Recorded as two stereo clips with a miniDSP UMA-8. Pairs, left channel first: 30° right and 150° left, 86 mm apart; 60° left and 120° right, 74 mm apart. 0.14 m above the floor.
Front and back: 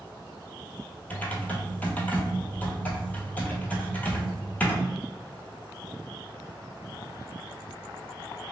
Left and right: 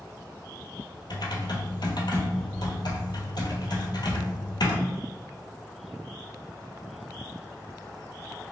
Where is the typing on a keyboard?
40° left, 0.7 m.